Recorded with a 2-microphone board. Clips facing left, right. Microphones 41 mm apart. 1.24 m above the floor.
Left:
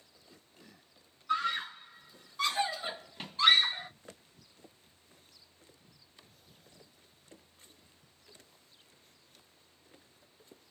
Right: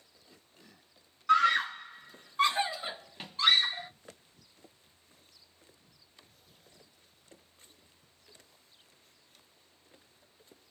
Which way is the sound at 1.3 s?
70° right (ahead or behind).